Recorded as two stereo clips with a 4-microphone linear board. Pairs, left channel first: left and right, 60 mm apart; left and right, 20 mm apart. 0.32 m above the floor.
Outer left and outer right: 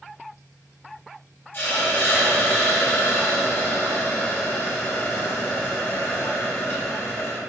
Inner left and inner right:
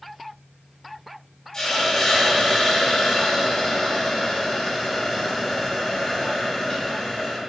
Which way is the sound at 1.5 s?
35° left (ahead or behind).